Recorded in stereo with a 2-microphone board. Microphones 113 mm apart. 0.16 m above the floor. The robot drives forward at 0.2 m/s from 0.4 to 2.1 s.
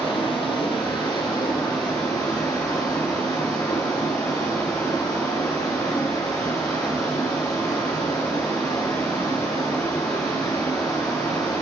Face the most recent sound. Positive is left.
turn(degrees=35)  # may be behind; listen again after turning